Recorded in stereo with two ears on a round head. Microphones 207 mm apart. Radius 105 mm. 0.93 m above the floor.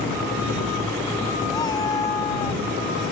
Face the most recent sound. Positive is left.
turn(degrees=15)  # may be behind; listen again after turning